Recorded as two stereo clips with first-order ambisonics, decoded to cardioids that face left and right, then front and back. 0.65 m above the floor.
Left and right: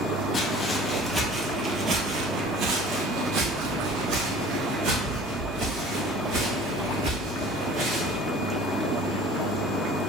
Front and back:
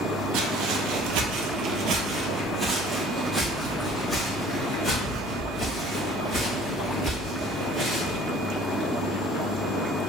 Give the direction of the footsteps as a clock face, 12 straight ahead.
7 o'clock.